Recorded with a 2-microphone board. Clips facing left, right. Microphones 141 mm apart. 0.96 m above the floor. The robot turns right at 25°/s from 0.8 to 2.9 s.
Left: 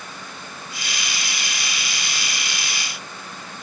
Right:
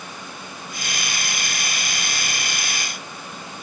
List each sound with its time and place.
Only background noise.